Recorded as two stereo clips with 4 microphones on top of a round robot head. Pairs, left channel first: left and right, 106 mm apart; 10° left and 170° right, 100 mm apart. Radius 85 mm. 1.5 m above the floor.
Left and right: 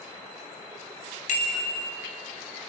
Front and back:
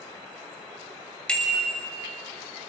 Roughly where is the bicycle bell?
Left.